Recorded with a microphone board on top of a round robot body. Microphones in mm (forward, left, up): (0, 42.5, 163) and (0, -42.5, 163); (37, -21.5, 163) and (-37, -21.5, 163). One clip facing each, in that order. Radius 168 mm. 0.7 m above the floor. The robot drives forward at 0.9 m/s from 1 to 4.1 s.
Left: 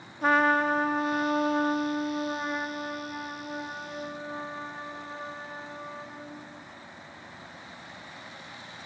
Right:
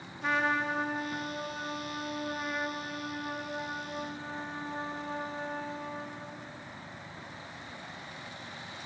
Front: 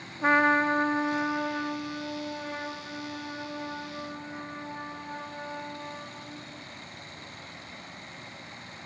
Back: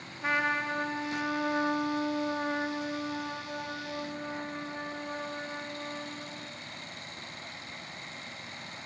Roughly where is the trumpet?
Ahead left.